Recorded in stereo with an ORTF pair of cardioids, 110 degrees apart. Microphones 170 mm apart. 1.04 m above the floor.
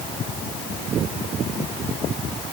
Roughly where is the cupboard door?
I don't hear a cupboard door.